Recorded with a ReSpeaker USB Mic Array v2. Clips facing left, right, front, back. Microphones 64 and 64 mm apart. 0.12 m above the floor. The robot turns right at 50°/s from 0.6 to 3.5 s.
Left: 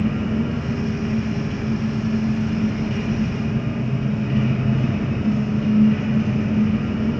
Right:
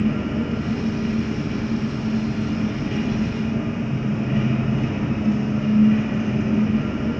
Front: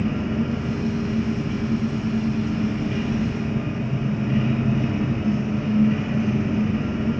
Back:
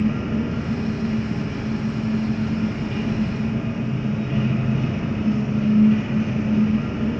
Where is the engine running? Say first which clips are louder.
Even, back 1 dB; 165° left, 1.1 m; by 7.2 s 50° right, 1.1 m.